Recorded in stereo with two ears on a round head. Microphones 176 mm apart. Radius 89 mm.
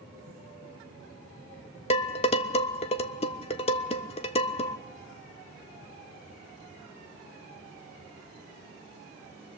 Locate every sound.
1.9 s dishes clattering: 35° left (ahead or behind), 0.8 m